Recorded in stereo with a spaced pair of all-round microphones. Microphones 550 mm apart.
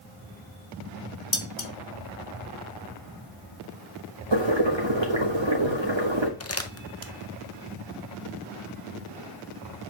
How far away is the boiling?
About 1.6 m.